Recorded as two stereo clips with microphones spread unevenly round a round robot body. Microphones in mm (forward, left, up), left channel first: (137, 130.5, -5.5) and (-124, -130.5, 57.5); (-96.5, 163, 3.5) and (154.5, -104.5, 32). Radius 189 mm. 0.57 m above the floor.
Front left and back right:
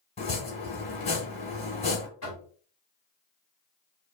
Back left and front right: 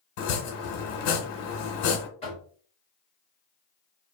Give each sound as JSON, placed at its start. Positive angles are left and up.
{"t": 0.2, "sound": "chopping", "azimuth_deg": 120, "distance_m": 1.1}
{"t": 2.2, "sound": "knocking", "azimuth_deg": 65, "distance_m": 1.4}